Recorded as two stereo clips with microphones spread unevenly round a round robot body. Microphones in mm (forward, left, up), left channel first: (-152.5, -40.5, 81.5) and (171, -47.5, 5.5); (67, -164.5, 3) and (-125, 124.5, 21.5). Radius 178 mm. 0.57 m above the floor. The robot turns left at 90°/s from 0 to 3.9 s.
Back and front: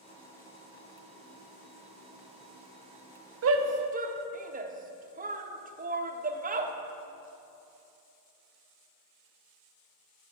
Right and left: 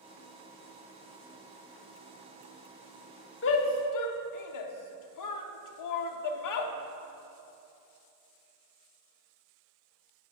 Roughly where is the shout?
Ahead.